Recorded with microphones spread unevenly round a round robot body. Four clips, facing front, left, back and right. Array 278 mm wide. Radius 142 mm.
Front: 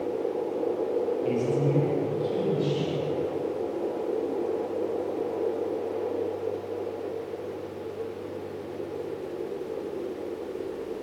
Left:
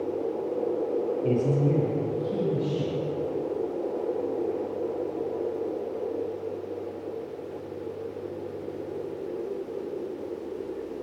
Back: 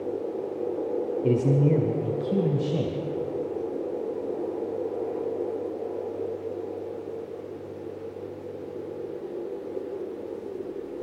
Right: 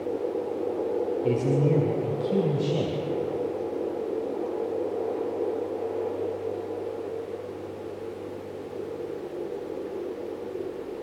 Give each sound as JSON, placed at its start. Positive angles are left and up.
{"t": 1.2, "sound": "a man speaking", "azimuth_deg": 175, "distance_m": 1.7}